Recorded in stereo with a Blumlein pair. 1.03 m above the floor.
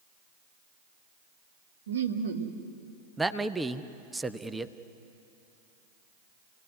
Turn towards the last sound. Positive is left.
turn(degrees=-5)